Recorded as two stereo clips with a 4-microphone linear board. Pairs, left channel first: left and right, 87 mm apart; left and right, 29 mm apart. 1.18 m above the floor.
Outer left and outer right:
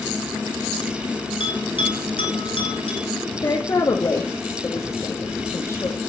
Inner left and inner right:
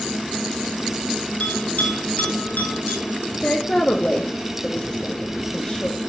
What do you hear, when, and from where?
1.4 s a bell: 70° left (ahead or behind), 4 m
3.4 s a woman speaking: 35° left (ahead or behind), 1.9 m